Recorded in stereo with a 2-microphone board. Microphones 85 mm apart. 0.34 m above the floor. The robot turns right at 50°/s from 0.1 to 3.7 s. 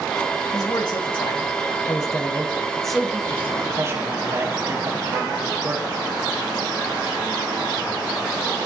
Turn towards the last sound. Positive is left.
turn(degrees=-140)